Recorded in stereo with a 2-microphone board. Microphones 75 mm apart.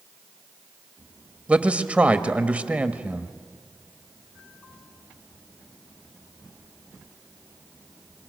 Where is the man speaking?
20° right (ahead or behind), 1.0 m.